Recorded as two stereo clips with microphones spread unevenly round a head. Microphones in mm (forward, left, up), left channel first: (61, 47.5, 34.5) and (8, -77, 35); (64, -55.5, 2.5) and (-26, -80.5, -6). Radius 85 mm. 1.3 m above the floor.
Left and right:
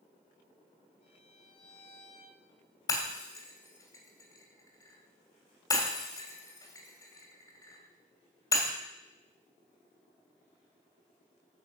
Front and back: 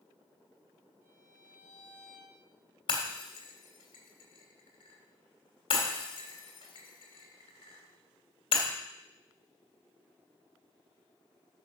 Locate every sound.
1.0 s a violin: 120° left, 4 m
2.9 s breaking glass: 5° left, 2.5 m